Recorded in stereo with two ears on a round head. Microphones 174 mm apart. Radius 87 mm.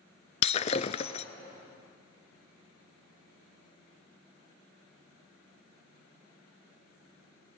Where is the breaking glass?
35° left (ahead or behind), 0.8 m.